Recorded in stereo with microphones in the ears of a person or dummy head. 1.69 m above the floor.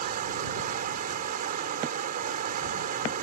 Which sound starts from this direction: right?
Running water, at 0.0 s.